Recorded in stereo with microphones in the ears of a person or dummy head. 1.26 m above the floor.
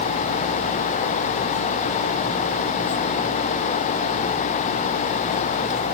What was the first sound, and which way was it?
Only background noise.